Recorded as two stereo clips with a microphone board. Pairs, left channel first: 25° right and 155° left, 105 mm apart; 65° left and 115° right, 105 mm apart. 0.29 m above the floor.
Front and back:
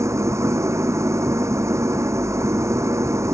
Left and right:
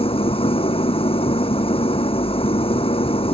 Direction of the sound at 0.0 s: 95° left.